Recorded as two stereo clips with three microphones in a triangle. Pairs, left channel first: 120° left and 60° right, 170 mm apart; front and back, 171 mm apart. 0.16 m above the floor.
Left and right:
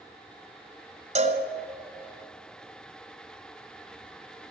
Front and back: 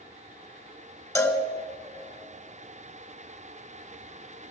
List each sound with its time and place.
1.1 s a cowbell: 65° right, 1.3 m